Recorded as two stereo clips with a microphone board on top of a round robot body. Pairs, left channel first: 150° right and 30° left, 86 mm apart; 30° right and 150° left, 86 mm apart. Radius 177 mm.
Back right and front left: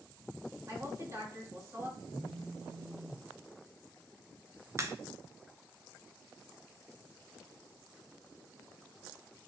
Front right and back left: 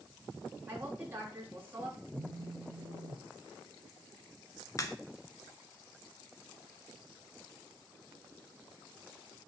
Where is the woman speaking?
85° left, 3.5 m.